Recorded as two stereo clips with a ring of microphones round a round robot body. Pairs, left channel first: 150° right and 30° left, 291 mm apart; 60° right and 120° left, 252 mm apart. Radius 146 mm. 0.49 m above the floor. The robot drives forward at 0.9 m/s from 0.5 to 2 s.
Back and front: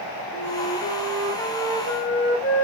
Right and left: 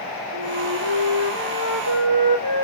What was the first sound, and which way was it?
A flute, 110° left.